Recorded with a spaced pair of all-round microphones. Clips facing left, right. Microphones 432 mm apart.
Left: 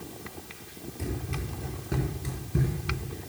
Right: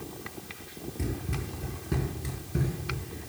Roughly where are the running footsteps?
Right.